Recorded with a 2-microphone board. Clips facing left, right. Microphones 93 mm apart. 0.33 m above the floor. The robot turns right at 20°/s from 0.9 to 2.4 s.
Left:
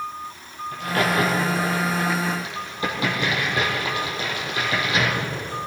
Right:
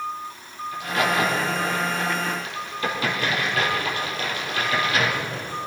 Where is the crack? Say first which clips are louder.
Left 1 dB; 50° left (ahead or behind), 4 m; by 5.5 s 20° left (ahead or behind), 4 m.